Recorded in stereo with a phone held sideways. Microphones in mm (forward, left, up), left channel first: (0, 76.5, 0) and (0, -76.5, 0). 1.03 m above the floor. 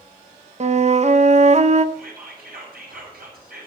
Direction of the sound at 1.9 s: 80° right.